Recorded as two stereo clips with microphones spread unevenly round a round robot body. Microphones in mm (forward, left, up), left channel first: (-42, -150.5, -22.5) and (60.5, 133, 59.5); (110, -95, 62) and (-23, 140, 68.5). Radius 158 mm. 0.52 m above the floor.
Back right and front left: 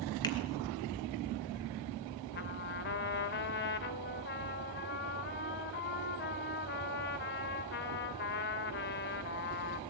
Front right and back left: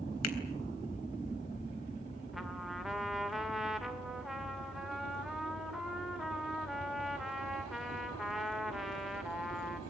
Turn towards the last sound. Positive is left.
turn(degrees=-150)